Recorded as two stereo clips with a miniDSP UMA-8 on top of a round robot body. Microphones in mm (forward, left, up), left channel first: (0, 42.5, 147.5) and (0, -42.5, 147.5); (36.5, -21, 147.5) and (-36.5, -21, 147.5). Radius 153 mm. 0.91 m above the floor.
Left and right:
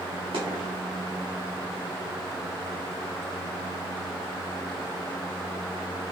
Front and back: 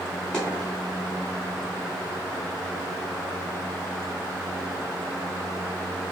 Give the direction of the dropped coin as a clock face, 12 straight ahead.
3 o'clock.